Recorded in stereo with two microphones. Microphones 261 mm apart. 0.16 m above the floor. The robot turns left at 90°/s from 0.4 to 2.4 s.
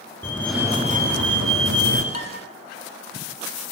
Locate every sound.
0.2 s a fire alarm: 10° left, 4 m; by 2.0 s 135° right, 4 m
2.1 s dishes clattering: 70° left (ahead or behind), 3 m; by 2.3 s 75° left (ahead or behind), 3 m